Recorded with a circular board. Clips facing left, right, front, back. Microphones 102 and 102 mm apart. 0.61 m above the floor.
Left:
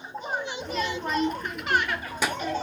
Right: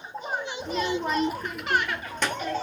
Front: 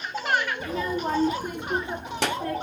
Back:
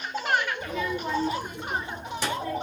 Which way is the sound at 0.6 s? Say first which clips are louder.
Right 2 dB, front 2 dB; 40° right.